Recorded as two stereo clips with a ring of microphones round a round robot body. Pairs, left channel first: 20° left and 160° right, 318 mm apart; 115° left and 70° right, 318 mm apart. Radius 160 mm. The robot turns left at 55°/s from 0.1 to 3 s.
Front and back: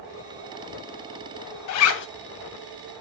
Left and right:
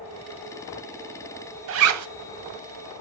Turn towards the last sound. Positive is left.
turn(degrees=-85)